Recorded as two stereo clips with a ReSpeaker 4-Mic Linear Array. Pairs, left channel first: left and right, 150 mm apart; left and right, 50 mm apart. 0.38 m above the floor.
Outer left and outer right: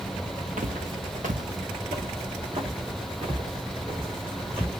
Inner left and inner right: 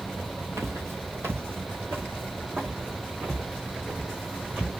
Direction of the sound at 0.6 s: 60° right (ahead or behind).